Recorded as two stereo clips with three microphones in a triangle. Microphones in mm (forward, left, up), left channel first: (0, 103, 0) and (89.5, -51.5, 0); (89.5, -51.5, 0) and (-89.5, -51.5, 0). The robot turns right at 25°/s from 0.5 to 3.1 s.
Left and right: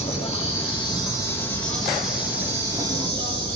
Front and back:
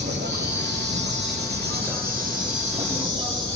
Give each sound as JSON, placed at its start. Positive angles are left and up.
{"t": 0.0, "sound": "an insect", "azimuth_deg": 175, "distance_m": 9.5}